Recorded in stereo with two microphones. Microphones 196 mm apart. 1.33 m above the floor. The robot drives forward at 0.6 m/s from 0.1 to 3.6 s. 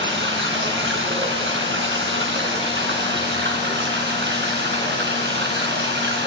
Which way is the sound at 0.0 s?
70° right (ahead or behind).